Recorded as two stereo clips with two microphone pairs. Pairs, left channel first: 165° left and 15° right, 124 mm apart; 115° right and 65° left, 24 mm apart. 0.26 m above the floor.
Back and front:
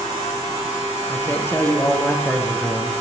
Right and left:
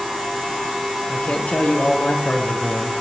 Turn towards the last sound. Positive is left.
turn(degrees=-125)